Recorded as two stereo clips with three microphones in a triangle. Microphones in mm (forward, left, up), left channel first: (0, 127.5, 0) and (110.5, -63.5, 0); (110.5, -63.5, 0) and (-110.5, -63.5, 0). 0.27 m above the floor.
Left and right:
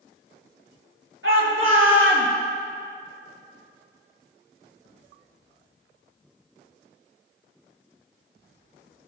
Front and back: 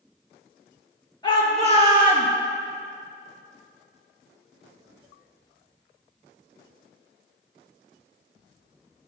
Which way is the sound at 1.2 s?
70° right.